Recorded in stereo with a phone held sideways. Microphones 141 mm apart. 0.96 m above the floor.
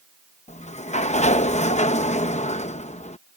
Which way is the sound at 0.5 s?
55° left (ahead or behind).